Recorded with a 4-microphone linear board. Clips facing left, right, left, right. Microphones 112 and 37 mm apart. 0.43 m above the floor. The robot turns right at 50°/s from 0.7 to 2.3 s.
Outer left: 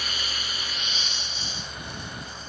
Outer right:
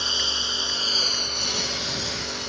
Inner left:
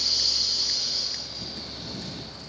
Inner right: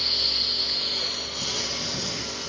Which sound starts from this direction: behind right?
A lawn mower, at 0.0 s.